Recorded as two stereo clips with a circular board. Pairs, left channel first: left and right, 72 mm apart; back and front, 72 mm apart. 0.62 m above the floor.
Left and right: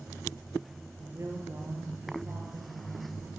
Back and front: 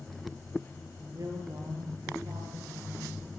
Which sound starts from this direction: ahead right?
A woman speaking, at 1.1 s.